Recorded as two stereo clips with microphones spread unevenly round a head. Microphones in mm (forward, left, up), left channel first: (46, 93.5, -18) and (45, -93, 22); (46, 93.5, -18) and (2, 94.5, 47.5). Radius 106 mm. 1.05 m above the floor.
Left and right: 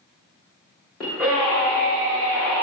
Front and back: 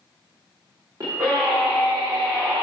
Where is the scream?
170° left, 2.5 m; by 2.6 s 175° right, 4.5 m.